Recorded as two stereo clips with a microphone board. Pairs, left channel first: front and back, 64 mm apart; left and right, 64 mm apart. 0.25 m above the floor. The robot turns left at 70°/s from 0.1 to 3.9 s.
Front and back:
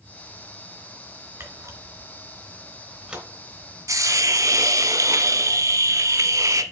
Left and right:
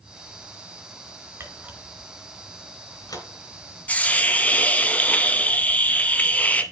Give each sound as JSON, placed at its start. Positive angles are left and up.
{"t": 1.4, "sound": "a camera shutter", "azimuth_deg": -130, "distance_m": 2.5}
{"t": 3.9, "sound": "a hiss", "azimuth_deg": 160, "distance_m": 0.8}